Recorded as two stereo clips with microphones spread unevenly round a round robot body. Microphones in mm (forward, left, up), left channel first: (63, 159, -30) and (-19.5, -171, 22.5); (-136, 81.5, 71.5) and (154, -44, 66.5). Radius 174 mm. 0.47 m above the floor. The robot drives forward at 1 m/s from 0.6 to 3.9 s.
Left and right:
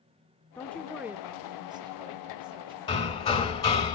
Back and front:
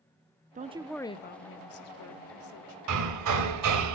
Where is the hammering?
Straight ahead, 3.5 m.